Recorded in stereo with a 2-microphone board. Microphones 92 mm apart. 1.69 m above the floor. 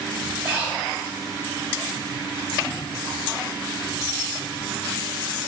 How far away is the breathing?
About 1.3 m.